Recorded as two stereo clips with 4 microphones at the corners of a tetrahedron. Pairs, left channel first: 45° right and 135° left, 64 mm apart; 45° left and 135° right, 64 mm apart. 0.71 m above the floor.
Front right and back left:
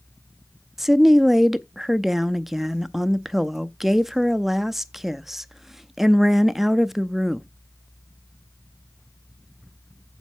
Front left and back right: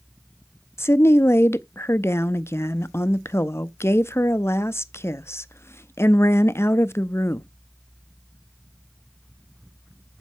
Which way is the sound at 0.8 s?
55° left.